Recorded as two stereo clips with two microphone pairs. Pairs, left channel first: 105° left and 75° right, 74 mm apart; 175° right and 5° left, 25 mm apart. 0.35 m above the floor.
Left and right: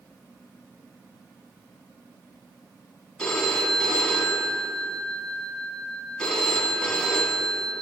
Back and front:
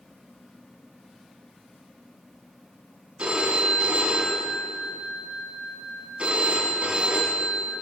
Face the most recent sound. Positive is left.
turn(degrees=30)